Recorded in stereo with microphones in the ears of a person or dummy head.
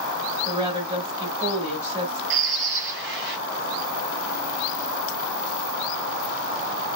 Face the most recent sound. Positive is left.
turn(degrees=-50)  # may be behind; listen again after turning